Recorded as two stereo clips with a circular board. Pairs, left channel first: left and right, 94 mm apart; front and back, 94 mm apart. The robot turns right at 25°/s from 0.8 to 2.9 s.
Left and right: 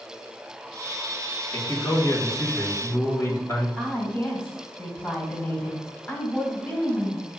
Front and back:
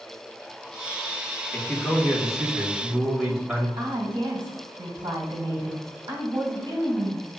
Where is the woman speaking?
155° left, 1.8 m.